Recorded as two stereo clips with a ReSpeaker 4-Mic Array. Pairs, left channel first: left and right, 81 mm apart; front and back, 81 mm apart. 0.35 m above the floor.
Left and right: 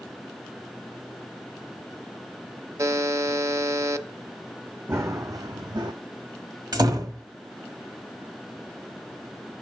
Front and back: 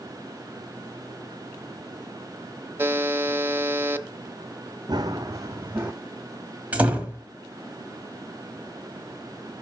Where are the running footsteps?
145° right, 1.1 m; by 5.9 s 115° right, 1.3 m.